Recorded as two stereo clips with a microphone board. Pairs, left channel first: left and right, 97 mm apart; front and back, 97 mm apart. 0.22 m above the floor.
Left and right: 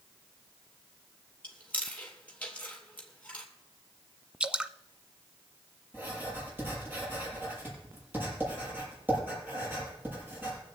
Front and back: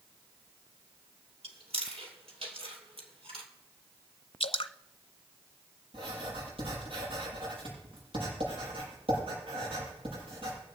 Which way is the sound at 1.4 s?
165° left.